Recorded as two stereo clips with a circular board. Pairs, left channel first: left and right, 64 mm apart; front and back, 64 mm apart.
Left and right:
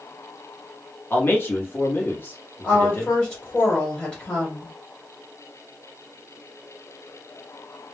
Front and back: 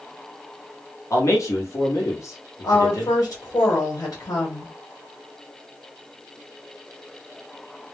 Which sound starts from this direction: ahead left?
A man speaking, at 1.1 s.